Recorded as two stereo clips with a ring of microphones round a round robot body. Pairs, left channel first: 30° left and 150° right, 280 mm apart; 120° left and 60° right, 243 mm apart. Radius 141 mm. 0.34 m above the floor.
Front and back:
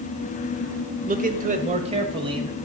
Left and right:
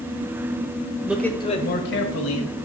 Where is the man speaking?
135° right, 1.1 m; by 2.5 s 135° left, 2 m.